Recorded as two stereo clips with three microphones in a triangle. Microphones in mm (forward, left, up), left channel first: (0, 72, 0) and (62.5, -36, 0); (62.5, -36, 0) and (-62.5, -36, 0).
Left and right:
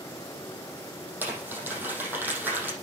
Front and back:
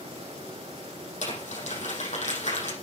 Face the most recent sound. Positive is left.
turn(degrees=15)